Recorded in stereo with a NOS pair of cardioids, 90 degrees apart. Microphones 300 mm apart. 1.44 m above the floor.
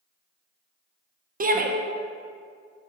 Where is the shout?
30° right, 1.3 m.